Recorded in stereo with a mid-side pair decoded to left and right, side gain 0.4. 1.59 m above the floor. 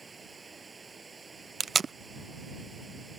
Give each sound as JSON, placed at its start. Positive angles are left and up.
{"t": 0.0, "sound": "running water", "azimuth_deg": -30}
{"t": 1.6, "sound": "tape being pulled", "azimuth_deg": -45}